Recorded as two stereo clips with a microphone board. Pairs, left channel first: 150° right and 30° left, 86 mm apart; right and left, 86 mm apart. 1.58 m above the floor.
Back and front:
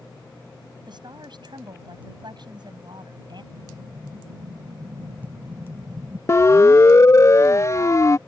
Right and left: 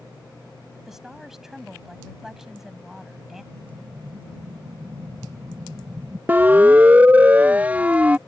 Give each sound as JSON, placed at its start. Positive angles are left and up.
{"t": 0.9, "sound": "a woman speaking", "azimuth_deg": 5}
{"t": 3.5, "sound": "an explosion", "azimuth_deg": 50}
{"t": 6.3, "sound": "a siren", "azimuth_deg": 155}